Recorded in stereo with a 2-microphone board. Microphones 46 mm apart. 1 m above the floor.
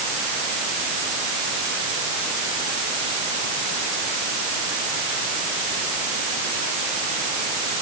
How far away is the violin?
I don't hear a violin.